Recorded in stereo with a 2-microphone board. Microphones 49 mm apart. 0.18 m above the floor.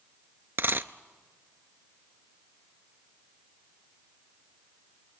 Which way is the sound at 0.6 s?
50° right (ahead or behind).